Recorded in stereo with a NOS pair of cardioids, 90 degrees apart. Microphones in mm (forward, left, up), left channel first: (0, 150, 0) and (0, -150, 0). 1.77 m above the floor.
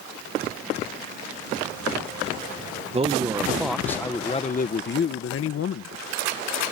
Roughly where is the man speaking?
Ahead.